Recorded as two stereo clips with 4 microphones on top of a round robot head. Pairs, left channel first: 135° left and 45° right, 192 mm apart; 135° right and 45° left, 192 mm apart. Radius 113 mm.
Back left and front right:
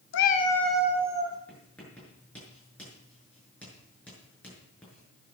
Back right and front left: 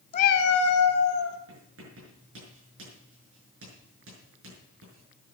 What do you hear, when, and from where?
0.1 s a cat meowing: 165° left, 0.6 m; by 1.4 s 120° right, 2.0 m
1.5 s writing: 50° left, 7 m